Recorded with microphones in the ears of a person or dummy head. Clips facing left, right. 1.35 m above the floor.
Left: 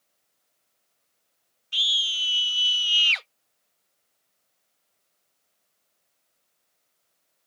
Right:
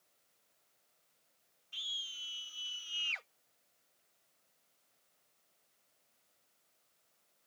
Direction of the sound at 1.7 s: 85° left.